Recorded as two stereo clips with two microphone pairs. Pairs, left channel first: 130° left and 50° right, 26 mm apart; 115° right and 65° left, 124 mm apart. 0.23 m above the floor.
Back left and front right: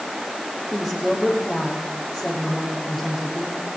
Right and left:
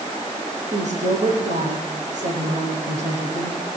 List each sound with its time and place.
0.7 s a woman speaking: 40° left, 8.5 m